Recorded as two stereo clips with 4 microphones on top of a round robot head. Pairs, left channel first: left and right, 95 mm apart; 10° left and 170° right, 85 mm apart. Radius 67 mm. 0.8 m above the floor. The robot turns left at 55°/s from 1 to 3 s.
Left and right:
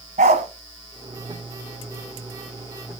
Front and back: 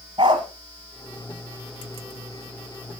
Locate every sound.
0.2 s a dog barking: 115° right, 1.8 m